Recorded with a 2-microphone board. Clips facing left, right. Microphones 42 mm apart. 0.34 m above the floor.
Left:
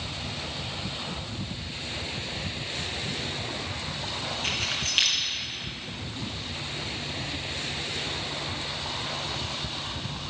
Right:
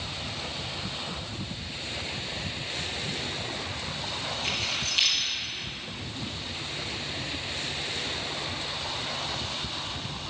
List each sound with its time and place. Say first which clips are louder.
4.4 s keys jangling: left 1 dB; 50° left (ahead or behind), 3 m